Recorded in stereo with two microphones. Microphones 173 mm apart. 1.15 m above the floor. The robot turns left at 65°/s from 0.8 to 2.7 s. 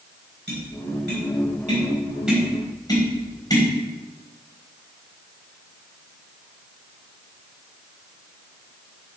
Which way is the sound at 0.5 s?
80° right.